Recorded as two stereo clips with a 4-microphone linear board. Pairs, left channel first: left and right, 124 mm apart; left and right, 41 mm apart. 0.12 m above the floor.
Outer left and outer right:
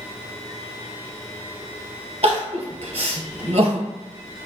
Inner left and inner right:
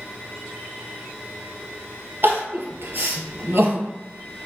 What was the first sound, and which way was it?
Crying, 55° right (ahead or behind).